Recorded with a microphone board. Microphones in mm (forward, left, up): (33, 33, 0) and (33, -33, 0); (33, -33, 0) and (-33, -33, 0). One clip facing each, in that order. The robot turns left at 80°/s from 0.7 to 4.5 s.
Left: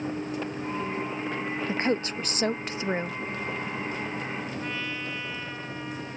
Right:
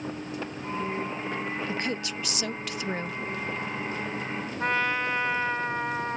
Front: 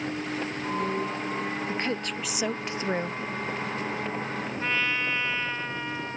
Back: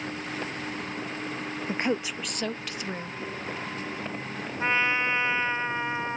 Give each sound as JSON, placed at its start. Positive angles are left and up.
{"t": 1.7, "sound": "a woman speaking", "azimuth_deg": 135}
{"t": 4.6, "sound": "a trumpet", "azimuth_deg": -110}